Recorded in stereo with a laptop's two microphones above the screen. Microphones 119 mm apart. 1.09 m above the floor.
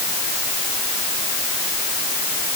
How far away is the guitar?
No guitar in this recording.